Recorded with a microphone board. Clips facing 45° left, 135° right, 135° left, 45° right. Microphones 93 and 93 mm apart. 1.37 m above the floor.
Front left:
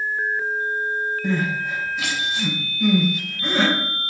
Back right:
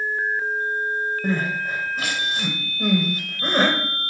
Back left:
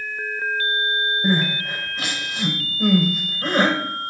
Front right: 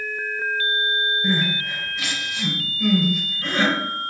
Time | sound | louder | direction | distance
1.2 | crying | front left 1 dB, back left 2 dB | straight behind | 3.5 m